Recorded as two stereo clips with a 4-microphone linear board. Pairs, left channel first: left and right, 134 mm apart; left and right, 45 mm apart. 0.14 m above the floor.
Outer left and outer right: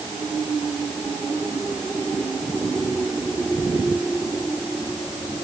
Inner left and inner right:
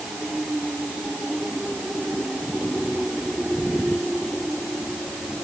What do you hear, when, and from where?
Only background noise.